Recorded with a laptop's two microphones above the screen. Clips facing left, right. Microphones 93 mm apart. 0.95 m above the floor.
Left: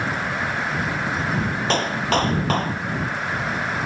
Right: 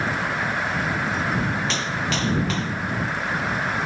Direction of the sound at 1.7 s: 50° left (ahead or behind).